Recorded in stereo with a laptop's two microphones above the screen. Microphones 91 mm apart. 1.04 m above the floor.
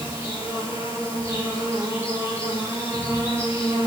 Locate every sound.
0.0 s an insect: 30° right (ahead or behind), 6 m